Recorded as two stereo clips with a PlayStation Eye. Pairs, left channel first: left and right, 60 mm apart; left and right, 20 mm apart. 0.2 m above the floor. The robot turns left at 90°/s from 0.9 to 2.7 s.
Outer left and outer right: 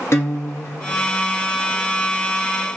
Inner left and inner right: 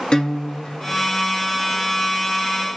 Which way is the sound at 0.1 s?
45° left (ahead or behind).